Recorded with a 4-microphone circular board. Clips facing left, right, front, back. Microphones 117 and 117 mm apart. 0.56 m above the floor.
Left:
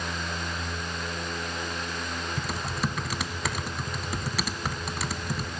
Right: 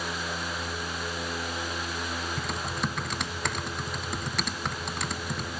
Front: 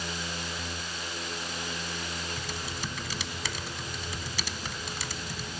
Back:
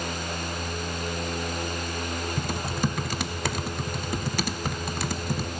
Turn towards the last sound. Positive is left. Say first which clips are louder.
# left 3 dB, back 9 dB
turn(degrees=175)